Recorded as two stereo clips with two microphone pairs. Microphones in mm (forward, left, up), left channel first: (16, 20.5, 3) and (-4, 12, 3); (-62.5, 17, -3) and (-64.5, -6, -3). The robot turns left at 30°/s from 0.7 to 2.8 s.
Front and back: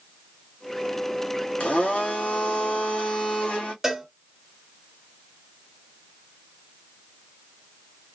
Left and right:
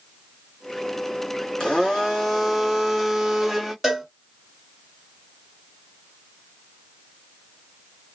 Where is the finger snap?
I don't hear a finger snap.